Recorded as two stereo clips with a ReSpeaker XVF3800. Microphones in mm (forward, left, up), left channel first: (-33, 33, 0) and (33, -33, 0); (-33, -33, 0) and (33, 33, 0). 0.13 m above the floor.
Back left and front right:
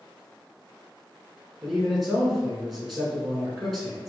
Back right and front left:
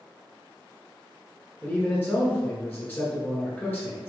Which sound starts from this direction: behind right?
A man speaking, at 1.6 s.